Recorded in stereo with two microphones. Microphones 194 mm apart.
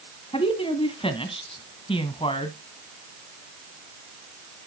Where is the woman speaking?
30° left (ahead or behind), 1.7 m.